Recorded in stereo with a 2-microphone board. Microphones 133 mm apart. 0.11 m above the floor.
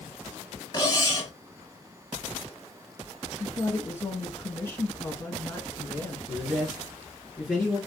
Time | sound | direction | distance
0.7 | cutlery clinking | 30° left (ahead or behind) | 1.3 m
3.4 | a woman speaking | 20° left (ahead or behind) | 1.1 m
6.3 | a man speaking | 5° left (ahead or behind) | 1.5 m